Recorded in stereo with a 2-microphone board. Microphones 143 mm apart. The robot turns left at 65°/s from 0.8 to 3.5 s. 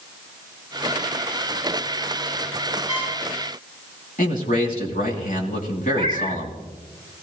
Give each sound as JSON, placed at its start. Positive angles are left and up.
{"t": 2.9, "sound": "a trumpet", "side_deg": 45, "distance_m": 7.0}
{"t": 4.2, "sound": "a man speaking", "side_deg": 65, "distance_m": 3.0}
{"t": 5.9, "sound": "a cat meowing", "side_deg": -50, "distance_m": 2.5}